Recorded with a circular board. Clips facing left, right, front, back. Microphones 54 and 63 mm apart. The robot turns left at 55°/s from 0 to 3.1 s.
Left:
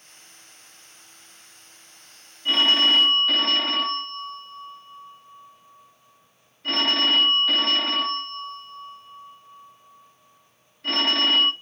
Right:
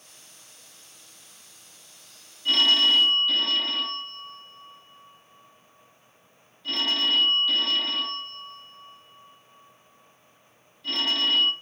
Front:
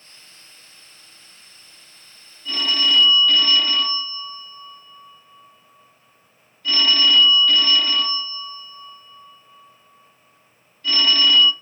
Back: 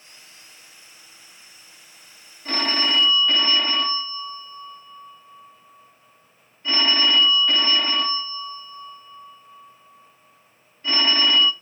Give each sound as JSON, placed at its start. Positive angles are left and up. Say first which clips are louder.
{"t": 2.5, "sound": "a phone ringing", "louder": "left 2 dB, front 2 dB", "azimuth_deg": 155, "distance_m": 1.0}